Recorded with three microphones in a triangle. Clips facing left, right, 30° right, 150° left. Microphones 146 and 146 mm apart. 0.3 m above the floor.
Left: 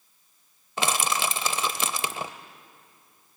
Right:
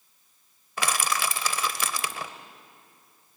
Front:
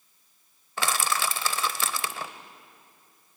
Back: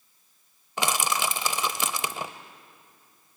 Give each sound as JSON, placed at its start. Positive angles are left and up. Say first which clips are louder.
{"t": 0.8, "sound": "crushing", "louder": "left 2 dB, back 1 dB", "azimuth_deg": 110, "distance_m": 0.6}